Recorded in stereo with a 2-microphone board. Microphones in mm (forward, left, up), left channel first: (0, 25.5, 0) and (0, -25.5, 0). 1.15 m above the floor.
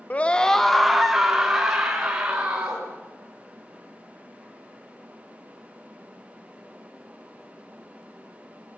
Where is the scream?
30° left (ahead or behind), 0.9 m; by 2.9 s 20° right (ahead or behind), 4 m.